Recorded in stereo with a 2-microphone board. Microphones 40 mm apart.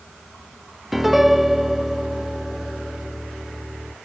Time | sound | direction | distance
0.9 | a piano | 5° right (ahead or behind) | 0.9 m